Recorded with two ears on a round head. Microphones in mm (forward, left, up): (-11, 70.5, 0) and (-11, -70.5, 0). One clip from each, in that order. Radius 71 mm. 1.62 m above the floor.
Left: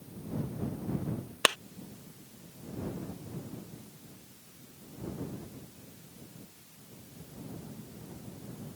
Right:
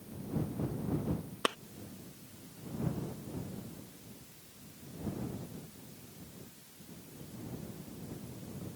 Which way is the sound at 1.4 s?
70° left (ahead or behind).